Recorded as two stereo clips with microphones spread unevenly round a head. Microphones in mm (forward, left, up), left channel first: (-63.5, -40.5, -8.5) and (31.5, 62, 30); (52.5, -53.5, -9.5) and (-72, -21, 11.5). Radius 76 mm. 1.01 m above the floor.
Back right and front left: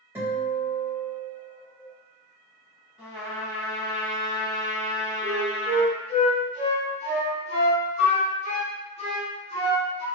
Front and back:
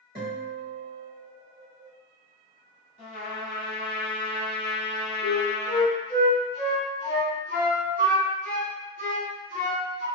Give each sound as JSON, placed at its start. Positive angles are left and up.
{"t": 0.1, "sound": "a guitar", "azimuth_deg": 125, "distance_m": 1.4}
{"t": 3.0, "sound": "a trumpet", "azimuth_deg": -15, "distance_m": 1.0}
{"t": 5.2, "sound": "a flute", "azimuth_deg": -175, "distance_m": 1.4}